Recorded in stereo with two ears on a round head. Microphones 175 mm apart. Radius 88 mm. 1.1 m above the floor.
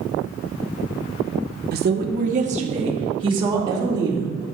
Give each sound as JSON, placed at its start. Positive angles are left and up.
{"t": 1.7, "sound": "a woman speaking", "side_deg": -55, "distance_m": 1.0}